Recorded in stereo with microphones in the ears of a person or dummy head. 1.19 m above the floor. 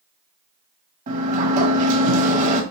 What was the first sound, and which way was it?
A sliding door, 50° right (ahead or behind).